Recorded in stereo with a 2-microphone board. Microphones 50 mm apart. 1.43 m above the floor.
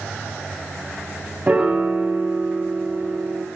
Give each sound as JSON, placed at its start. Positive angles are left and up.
{"t": 1.5, "sound": "a piano", "side_deg": -25, "distance_m": 0.9}